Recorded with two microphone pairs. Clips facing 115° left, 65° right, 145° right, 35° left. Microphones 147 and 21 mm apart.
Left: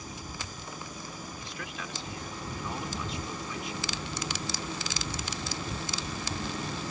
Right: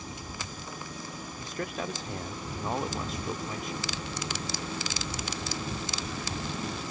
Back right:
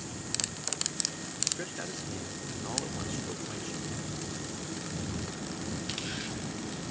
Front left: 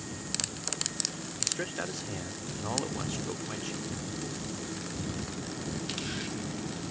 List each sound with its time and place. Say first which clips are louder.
1.4 s a man speaking: right 6 dB, front left 2 dB; 30° right